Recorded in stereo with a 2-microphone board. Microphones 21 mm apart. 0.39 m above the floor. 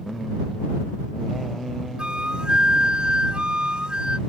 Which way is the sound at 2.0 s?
50° right (ahead or behind).